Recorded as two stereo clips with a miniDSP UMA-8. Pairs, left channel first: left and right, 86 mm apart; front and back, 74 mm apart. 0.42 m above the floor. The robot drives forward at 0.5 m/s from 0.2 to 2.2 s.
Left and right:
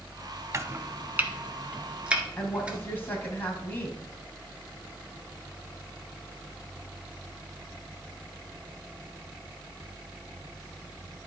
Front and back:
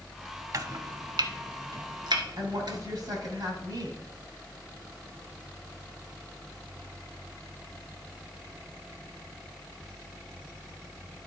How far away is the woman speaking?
About 3 m.